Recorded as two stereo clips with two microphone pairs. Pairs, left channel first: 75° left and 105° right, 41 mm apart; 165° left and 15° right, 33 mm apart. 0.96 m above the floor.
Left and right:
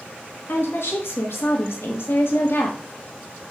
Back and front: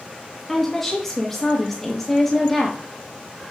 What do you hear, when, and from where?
0.5 s a woman speaking: 80° left, 1.1 m